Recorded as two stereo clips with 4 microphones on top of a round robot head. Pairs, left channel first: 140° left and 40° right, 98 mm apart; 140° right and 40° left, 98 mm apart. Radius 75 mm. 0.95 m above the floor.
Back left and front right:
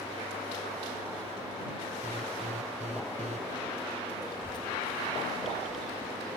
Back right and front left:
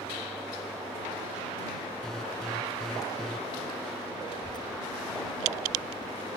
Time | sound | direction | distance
2.0 | an alarm | 50° right | ?
4.3 | a child speaking | straight behind | ?